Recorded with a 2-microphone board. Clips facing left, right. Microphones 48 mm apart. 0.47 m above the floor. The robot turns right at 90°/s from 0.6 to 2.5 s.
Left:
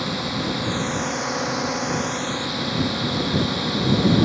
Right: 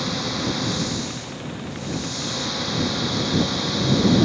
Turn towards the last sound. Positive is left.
turn(degrees=5)  # may be behind; listen again after turning